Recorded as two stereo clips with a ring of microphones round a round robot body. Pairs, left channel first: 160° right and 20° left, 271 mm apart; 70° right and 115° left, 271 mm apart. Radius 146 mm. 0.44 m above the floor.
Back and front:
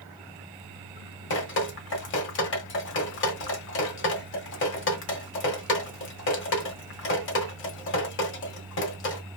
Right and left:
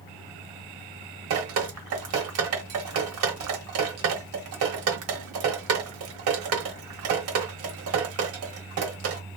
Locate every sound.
1.3 s dripping: 155° left, 1.2 m